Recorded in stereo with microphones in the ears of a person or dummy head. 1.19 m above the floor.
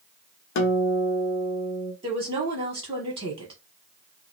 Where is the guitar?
60° left (ahead or behind), 0.6 m.